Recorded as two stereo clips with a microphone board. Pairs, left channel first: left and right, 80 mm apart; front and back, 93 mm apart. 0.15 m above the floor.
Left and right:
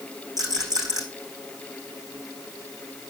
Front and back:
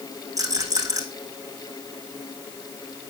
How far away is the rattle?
About 5.5 m.